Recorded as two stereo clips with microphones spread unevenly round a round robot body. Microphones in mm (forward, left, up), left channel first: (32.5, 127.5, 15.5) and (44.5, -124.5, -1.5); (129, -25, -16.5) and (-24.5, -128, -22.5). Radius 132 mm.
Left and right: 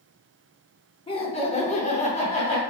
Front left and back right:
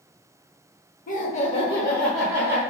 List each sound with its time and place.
1.1 s laughter: 30° left, 1.1 m; by 2.6 s 150° left, 1.0 m